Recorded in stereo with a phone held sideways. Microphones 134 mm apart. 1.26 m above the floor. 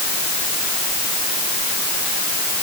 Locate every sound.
Only background noise.